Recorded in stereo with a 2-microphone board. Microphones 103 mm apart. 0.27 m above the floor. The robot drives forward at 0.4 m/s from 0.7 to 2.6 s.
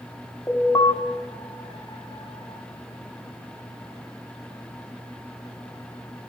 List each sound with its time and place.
0.5 s an alarm: 25° left (ahead or behind), 1.4 m